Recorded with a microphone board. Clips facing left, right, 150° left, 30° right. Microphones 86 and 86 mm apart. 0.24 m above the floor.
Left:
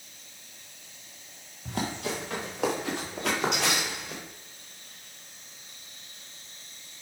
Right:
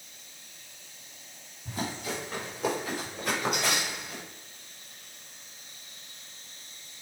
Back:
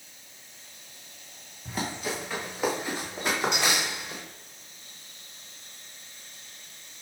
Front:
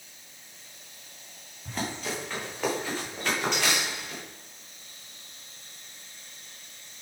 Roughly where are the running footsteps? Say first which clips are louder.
Left 3 dB, back 1 dB; ahead left.